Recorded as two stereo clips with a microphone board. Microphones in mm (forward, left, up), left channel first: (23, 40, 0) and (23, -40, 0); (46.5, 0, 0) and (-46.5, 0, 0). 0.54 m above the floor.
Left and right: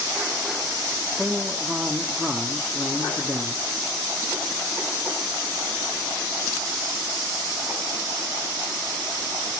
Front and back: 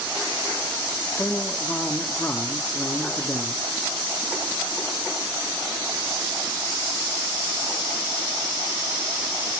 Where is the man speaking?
25° right, 1.1 m.